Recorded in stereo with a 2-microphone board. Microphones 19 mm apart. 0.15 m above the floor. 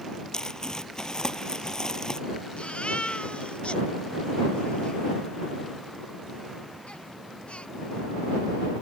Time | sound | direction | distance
0.3 | crumpling | 35° left (ahead or behind) | ?
2.6 | a baby crying | 70° left (ahead or behind) | ?